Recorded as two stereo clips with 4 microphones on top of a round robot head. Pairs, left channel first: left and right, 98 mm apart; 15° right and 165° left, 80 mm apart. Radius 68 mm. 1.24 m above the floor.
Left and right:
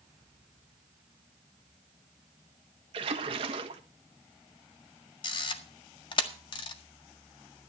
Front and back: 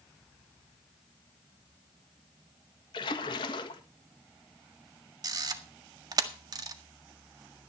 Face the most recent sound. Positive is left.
turn(degrees=130)